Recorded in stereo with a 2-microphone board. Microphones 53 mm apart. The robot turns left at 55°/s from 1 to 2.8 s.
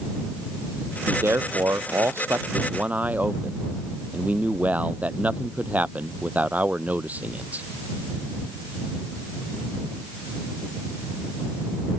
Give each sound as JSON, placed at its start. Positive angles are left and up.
{"t": 1.1, "sound": "a man speaking", "azimuth_deg": -50}